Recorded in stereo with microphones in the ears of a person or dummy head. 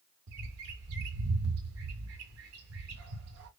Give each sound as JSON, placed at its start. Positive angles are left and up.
{"t": 0.3, "sound": "a bird", "side_deg": -85, "distance_m": 1.4}